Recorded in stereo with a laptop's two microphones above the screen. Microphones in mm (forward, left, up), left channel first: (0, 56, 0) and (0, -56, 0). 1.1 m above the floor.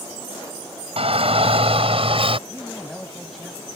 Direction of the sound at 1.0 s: 60° right (ahead or behind).